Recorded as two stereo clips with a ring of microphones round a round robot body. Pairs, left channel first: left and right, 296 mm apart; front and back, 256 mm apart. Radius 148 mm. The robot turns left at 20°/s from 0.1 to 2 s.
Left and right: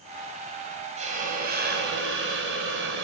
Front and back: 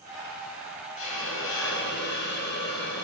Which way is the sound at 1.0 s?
25° right.